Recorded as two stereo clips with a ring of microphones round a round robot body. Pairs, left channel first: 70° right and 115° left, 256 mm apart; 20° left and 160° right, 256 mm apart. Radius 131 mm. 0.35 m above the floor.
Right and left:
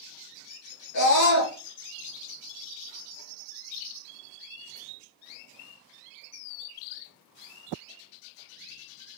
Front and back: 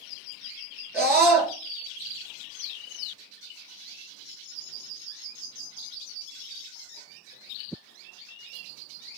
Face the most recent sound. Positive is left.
turn(degrees=-75)